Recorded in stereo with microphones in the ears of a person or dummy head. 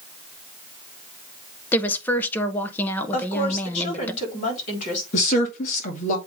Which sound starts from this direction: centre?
A woman speaking, at 1.7 s.